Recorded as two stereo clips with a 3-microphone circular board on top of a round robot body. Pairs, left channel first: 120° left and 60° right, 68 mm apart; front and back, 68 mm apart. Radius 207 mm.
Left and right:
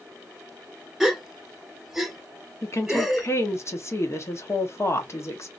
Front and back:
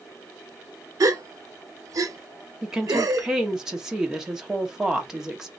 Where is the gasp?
145° right, 0.6 m.